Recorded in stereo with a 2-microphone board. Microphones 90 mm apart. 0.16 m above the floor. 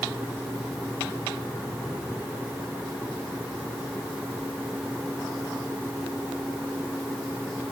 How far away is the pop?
No pop in this recording.